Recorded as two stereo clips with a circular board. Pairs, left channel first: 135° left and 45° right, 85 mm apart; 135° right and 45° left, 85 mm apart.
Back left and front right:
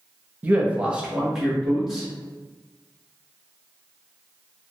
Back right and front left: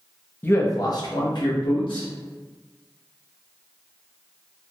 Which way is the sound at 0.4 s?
90° right.